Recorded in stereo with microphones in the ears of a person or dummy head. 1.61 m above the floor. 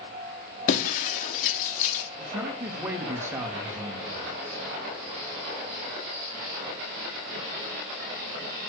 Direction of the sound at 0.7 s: 45° left (ahead or behind).